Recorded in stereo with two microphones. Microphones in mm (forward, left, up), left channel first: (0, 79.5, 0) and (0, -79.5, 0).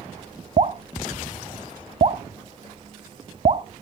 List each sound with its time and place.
0.6 s dripping: 45° right (ahead or behind), 0.8 m